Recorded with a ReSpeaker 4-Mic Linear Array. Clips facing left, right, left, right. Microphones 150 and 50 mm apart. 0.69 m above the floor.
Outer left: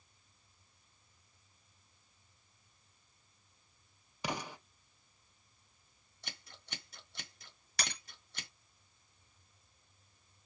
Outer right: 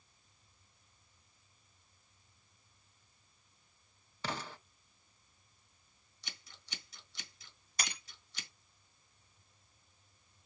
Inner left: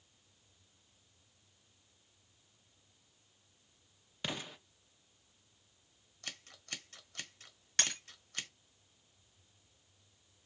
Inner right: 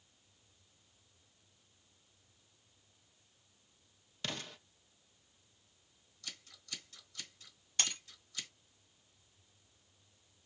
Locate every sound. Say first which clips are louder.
4.2 s an explosion: outer left 2 dB, inner left 2 dB; 15° left (ahead or behind), 0.6 m
6.2 s scissors: outer left 4 dB, inner left 4 dB; 55° left (ahead or behind), 1.2 m
7.8 s breaking glass: outer left 1 dB, inner left 2 dB; 80° left, 3.5 m